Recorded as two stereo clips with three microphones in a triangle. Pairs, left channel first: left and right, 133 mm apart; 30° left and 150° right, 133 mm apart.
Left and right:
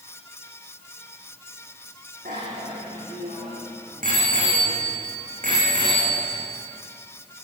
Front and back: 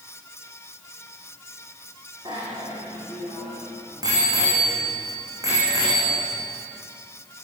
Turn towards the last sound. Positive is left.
turn(degrees=-85)